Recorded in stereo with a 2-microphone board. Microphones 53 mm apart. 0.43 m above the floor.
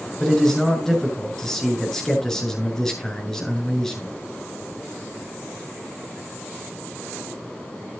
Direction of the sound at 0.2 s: 10° left (ahead or behind).